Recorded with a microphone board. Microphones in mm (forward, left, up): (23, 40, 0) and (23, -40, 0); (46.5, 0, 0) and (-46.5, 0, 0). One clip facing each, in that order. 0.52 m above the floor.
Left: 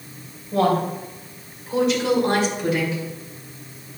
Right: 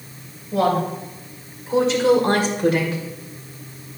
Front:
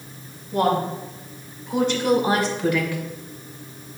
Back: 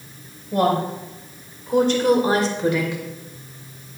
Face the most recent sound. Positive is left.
turn(degrees=-110)